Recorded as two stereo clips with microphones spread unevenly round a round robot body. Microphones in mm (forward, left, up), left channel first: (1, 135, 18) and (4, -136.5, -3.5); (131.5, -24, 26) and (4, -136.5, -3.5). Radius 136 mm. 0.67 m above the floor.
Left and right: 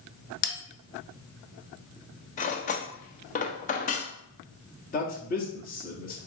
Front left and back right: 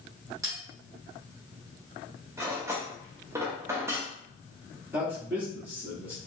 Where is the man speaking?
150° left, 1.2 m.